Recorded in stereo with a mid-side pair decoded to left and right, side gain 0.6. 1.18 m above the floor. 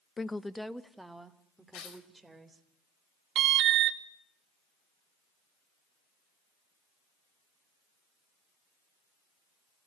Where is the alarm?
55° right, 2 m.